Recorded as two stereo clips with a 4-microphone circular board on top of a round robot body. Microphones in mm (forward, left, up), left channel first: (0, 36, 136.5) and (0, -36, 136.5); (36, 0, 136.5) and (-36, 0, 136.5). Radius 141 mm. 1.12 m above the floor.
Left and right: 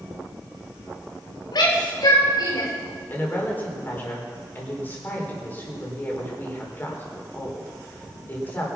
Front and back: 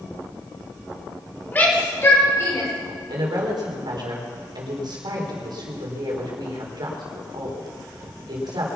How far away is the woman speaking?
About 4 m.